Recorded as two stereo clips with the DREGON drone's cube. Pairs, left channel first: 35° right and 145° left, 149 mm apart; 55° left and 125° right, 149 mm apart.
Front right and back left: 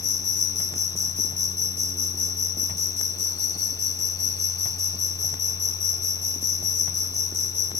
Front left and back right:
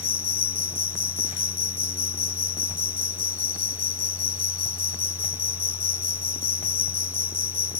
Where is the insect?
5° left.